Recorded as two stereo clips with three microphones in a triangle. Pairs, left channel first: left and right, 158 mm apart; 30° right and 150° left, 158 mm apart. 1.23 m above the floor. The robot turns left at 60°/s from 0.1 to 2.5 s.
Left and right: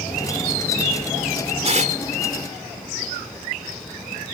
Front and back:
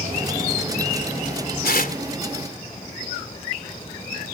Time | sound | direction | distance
1.6 | tearing paper | 40° right | ?